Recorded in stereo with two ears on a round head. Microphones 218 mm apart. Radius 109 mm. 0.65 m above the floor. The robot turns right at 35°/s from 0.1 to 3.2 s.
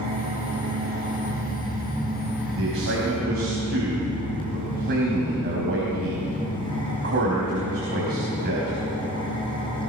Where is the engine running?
90° right, 5 m; by 9.9 s 20° left, 5 m.